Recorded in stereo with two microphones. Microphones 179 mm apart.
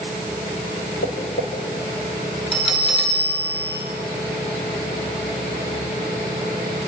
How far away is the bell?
About 9.5 m.